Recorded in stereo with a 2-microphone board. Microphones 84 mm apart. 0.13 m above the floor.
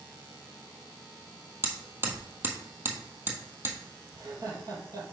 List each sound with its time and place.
1.6 s hammering: 25° right (ahead or behind), 1.2 m
4.1 s laughter: 45° right (ahead or behind), 3 m